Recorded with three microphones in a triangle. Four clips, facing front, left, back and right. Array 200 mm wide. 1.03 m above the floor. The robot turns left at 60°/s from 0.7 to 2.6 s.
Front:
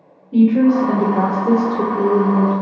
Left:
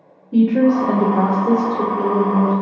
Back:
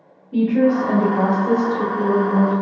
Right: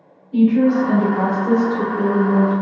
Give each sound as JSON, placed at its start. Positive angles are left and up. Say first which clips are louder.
{"t": 0.3, "sound": "a woman speaking", "louder": "even, front 4 dB", "azimuth_deg": 70, "distance_m": 1.4}